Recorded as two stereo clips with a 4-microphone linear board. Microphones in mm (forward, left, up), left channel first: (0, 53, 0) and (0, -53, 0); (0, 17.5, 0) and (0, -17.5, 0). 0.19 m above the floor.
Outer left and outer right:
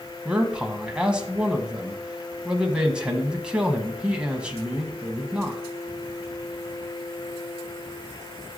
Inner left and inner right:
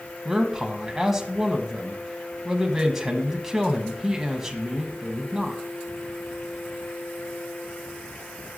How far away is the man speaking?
About 1.2 m.